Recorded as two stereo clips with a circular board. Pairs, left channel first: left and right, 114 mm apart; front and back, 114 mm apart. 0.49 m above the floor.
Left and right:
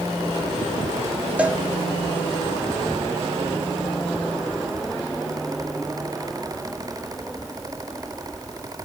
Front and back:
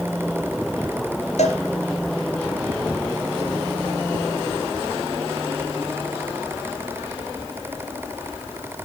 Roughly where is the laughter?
No laughter in this recording.